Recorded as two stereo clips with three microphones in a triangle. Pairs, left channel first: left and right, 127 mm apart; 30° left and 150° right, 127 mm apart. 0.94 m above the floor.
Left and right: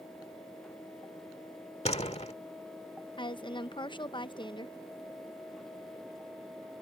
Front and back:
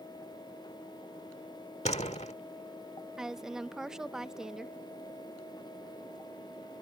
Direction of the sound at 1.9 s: 60° left.